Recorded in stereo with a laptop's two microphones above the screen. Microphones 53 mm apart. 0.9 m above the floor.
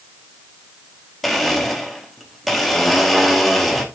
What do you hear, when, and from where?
1.2 s a blender: centre (ahead or behind), 0.9 m